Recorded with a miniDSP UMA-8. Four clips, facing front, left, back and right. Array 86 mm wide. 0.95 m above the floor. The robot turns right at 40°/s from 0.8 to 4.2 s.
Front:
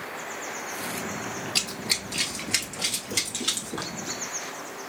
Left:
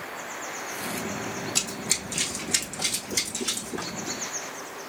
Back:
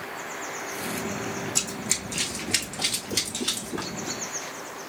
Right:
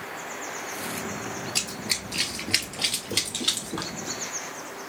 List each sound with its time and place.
1.6 s running footsteps: 20° right, 1.0 m; by 3.9 s 60° right, 1.9 m